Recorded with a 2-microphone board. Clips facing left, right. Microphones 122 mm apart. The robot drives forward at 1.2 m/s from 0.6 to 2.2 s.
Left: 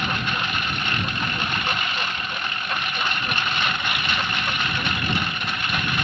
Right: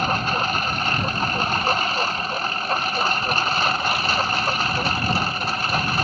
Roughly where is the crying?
I don't hear crying.